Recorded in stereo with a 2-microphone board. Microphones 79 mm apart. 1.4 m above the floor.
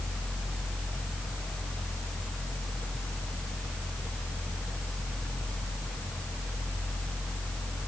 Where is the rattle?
No rattle in this recording.